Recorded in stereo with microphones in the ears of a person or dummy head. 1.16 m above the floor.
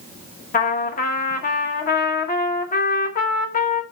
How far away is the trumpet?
About 1.1 m.